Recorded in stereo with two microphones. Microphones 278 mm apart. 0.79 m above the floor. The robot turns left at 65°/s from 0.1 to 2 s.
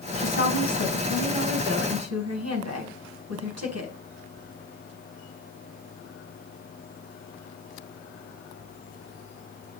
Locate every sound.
0.2 s a woman speaking: 55° left, 5 m; by 3.9 s 65° right, 5 m